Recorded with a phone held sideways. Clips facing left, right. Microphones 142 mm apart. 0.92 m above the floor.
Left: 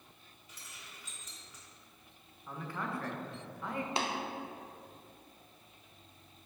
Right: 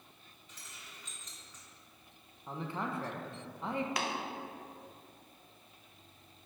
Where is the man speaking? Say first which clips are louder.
Right 2 dB; 20° right (ahead or behind), 0.6 m.